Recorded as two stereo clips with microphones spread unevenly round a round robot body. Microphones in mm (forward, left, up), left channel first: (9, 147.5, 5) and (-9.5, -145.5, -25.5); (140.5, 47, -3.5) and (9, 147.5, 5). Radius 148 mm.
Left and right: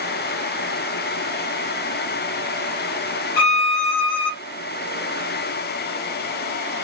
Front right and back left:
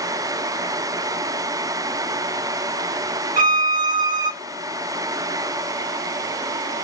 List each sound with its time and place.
3.4 s a violin: 105° left, 0.5 m